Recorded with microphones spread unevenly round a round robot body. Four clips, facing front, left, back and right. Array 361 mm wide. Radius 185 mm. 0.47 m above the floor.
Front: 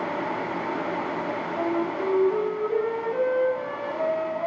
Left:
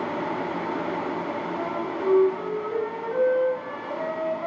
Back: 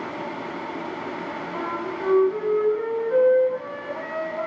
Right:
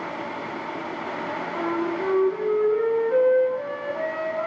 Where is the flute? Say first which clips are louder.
Right 3 dB, front 3 dB; 165° right, 5 m.